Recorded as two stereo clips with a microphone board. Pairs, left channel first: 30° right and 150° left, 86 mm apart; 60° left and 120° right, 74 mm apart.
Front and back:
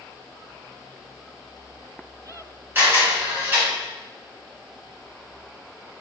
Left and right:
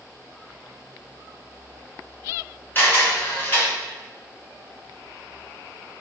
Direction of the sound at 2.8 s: 100° left.